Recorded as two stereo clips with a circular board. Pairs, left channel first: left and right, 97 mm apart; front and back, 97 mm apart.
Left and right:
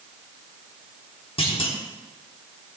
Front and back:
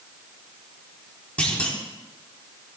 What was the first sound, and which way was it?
A clunk, 75° left.